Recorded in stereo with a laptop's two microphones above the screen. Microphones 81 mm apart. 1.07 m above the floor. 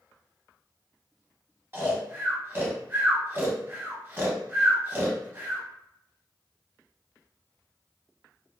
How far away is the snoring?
About 0.6 m.